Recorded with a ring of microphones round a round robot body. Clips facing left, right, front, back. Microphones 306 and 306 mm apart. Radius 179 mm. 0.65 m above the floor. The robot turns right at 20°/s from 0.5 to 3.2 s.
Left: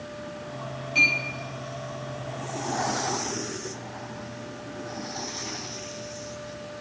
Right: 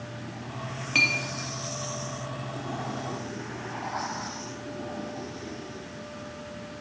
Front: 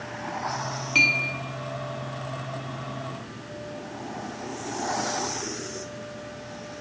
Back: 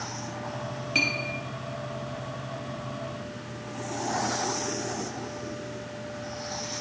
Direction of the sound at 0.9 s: 80° right.